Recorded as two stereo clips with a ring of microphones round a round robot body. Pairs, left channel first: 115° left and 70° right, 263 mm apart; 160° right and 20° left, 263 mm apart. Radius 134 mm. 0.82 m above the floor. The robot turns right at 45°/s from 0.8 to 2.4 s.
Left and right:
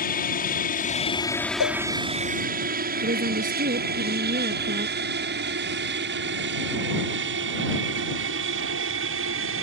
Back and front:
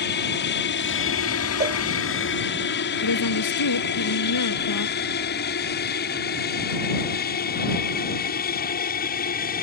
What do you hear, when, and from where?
0.0 s an aircraft: 165° left; by 9.6 s 105° right
1.6 s a cowbell: 85° left; by 1.8 s 95° left
3.0 s a woman speaking: 130° right